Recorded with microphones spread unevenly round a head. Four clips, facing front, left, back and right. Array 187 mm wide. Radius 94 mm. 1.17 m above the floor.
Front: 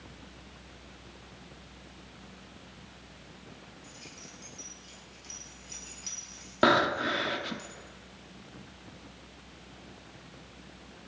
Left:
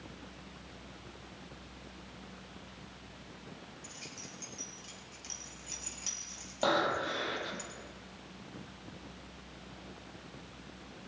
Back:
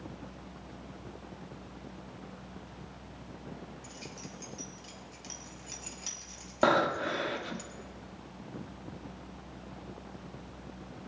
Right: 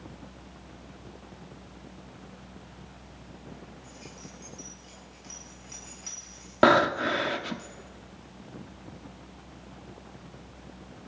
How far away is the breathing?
About 1.5 m.